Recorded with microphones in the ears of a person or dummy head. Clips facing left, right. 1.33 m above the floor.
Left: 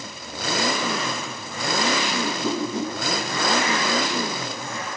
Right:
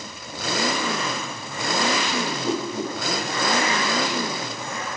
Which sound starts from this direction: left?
A whoosh, at 2.2 s.